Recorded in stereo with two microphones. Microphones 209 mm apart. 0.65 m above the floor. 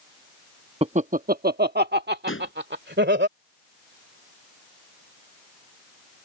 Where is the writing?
I don't hear writing.